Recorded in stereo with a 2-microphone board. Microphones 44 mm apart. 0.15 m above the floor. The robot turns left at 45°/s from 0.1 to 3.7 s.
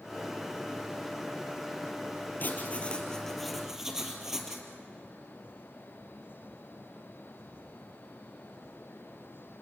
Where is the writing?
50° left, 3 m; by 4.7 s 10° right, 3 m.